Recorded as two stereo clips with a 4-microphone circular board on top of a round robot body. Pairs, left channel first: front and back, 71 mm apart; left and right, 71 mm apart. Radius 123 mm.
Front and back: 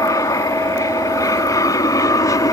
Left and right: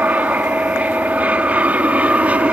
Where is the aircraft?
25° right; by 2.5 s 20° right.